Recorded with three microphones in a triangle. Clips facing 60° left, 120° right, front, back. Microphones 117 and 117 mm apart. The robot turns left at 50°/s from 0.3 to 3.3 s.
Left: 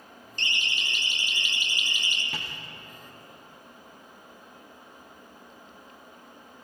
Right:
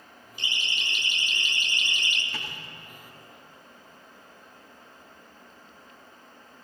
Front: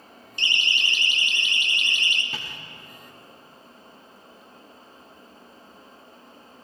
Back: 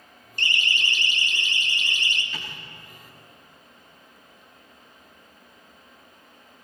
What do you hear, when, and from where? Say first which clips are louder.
0.4 s a siren: left 1 dB, back 1 dB; 160° left, 2.5 m; by 2.2 s 135° left, 2 m
2.3 s tapping: even, front 1 dB; 40° left, 6.5 m; by 2.5 s 30° left, 6.5 m